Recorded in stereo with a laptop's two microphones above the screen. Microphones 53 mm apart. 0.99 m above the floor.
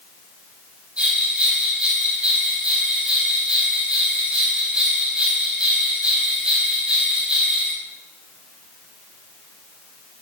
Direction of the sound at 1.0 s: 20° right (ahead or behind).